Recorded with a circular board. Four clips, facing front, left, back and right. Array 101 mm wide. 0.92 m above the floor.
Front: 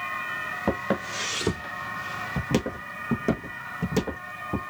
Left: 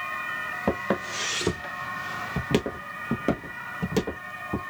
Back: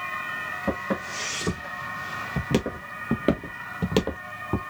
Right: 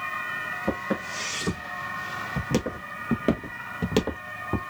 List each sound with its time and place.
0.7 s footsteps: 55° left, 1.5 m; by 4.6 s 145° right, 1.4 m